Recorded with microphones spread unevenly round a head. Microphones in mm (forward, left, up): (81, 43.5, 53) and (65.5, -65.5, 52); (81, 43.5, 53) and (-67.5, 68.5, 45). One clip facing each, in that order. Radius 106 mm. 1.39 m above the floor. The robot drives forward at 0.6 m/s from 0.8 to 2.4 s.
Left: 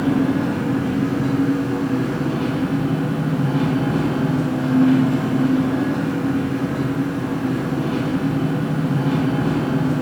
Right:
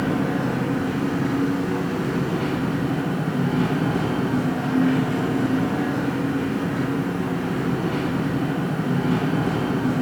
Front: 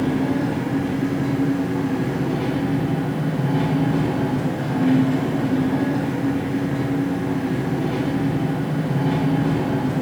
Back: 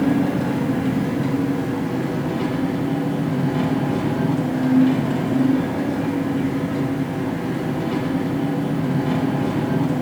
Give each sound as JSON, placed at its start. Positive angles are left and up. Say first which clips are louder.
{"t": 0.0, "sound": "an engine running", "louder": "left 4 dB, back 2 dB", "azimuth_deg": 160, "distance_m": 0.9}